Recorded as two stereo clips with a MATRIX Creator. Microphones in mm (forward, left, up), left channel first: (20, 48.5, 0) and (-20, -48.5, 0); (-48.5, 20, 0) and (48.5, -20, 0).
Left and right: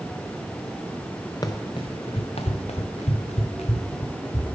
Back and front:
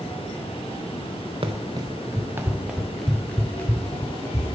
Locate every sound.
1.4 s running footsteps: 15° left, 1.1 m; by 4.6 s 95° left, 1.9 m